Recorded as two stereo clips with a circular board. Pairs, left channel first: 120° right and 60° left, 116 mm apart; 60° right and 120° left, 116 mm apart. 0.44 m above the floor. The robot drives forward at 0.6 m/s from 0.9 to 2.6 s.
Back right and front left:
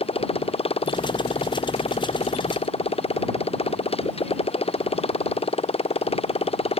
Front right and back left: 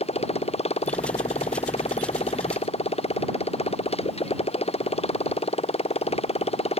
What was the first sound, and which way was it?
A motorcycle, 90° right.